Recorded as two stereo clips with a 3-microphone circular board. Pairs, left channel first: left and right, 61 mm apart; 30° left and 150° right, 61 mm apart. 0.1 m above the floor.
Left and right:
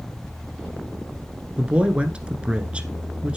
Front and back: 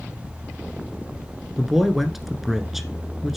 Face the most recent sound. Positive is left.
turn(degrees=-70)